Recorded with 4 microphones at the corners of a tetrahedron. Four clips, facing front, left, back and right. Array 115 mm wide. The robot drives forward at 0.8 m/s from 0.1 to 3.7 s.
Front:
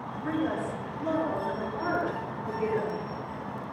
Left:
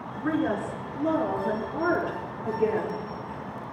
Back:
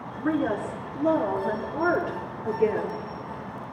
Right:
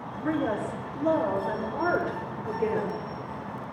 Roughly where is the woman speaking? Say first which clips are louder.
Left 1 dB, back 4 dB; behind left.